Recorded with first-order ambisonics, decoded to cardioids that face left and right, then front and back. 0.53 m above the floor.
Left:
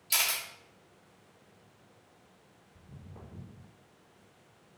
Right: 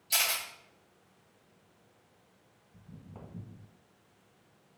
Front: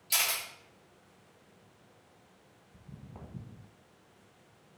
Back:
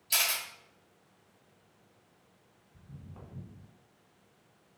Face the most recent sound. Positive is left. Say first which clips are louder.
# right 1 dB, front 1 dB
turn(degrees=-20)